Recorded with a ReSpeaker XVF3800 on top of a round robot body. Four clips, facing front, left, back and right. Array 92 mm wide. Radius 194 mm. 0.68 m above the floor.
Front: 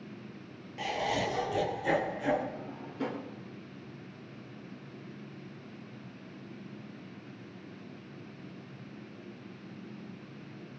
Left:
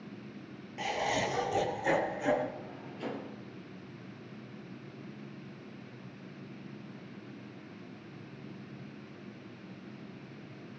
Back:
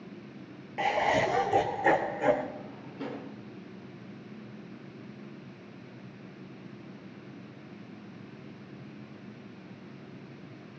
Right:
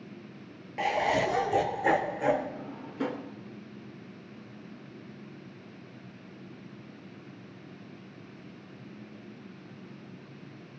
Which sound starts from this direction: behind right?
Laughter, at 0.8 s.